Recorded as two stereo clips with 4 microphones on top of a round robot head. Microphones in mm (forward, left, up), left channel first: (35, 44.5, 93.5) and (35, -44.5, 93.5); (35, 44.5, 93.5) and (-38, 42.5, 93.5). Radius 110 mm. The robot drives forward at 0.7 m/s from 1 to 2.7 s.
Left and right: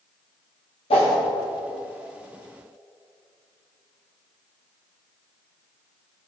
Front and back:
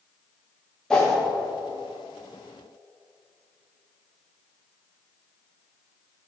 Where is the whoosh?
80° left, 1.7 m; by 1.2 s 85° left, 1.7 m.